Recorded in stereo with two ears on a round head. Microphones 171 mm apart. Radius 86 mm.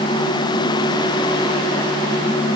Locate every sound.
Only background noise.